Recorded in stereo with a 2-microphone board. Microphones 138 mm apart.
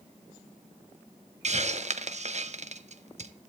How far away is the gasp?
No gasp in this recording.